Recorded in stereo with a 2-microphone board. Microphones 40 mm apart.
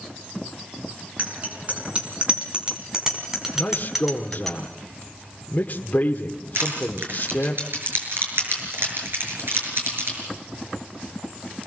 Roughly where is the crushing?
Right.